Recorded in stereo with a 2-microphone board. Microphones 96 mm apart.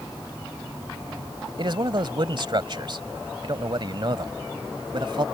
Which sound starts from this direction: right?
A man speaking, at 1.6 s.